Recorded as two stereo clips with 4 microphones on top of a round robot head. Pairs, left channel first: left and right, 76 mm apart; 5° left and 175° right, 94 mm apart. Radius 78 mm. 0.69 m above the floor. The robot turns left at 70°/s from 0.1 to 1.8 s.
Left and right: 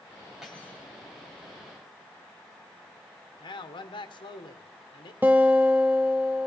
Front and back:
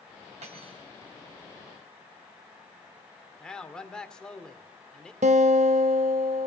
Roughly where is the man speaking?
Left.